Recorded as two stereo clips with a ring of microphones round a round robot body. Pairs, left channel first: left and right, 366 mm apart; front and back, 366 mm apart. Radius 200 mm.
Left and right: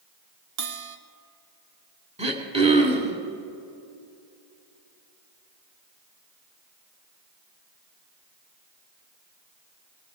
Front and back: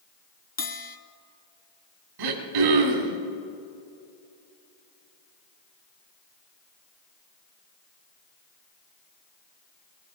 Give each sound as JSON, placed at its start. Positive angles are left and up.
{"t": 0.6, "sound": "a bell", "azimuth_deg": -70, "distance_m": 1.0}
{"t": 2.2, "sound": "throat clearing", "azimuth_deg": -165, "distance_m": 2.0}